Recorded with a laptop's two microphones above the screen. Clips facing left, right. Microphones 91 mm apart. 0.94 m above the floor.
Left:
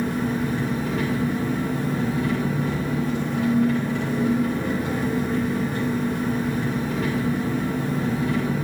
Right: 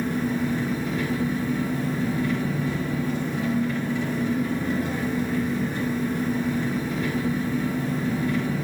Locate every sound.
0.0 s an engine running: 80° left, 2.5 m